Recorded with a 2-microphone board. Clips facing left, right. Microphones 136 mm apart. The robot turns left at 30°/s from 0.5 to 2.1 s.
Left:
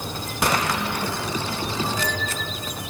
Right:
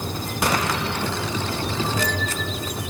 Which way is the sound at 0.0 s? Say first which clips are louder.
Right 1 dB; 55° right.